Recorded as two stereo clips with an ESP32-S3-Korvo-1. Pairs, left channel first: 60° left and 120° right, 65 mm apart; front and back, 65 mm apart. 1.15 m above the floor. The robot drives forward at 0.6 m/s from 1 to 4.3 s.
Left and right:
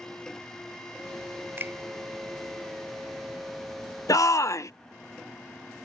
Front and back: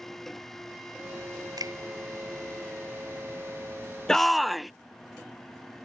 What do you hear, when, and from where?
1.6 s a finger snap: 175° right
4.1 s a shout: 80° left; by 4.7 s 90° left